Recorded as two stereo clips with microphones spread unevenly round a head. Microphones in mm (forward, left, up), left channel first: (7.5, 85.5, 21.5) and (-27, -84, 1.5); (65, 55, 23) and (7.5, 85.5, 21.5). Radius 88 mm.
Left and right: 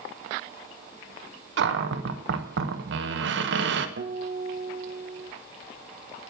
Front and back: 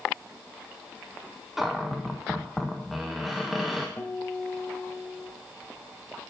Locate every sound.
1.6 s a cupboard door: 120° right, 1.1 m
4.0 s a guitar: 90° right, 1.4 m